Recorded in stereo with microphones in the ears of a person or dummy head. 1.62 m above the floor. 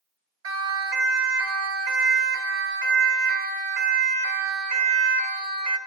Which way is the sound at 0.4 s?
80° right.